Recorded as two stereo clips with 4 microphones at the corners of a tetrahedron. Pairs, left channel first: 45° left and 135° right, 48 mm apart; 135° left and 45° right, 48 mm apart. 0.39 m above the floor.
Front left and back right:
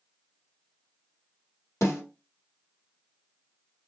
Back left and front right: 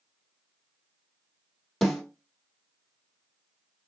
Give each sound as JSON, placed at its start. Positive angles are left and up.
{"t": 1.8, "sound": "a snare drum", "azimuth_deg": 55, "distance_m": 2.5}